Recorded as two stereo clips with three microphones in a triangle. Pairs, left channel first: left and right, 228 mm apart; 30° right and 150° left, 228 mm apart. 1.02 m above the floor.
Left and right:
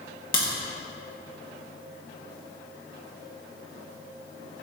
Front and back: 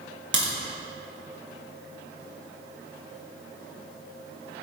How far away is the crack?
About 1.4 m.